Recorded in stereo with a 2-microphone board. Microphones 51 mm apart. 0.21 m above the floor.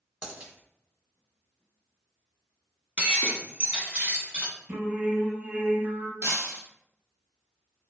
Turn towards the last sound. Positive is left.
turn(degrees=-55)  # may be behind; listen again after turning